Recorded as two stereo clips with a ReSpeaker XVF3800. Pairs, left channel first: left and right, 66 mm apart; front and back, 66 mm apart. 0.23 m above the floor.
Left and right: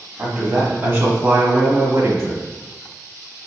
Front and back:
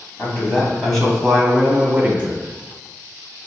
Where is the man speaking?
60° right, 1.5 m; by 2.4 s 115° right, 1.8 m.